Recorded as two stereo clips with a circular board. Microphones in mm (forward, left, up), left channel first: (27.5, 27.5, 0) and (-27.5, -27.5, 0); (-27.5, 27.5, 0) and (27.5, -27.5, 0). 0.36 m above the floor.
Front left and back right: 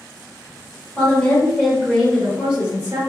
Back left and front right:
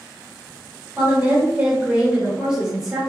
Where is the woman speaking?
10° right, 1.6 m; by 3.0 s 125° right, 1.5 m.